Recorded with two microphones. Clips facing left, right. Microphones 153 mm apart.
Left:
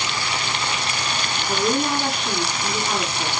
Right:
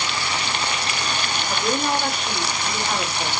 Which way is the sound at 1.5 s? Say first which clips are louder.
Left 2 dB; 15° left (ahead or behind).